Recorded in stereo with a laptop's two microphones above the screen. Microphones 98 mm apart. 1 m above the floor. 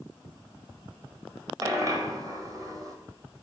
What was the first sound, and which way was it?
A dropped coin, 35° right (ahead or behind).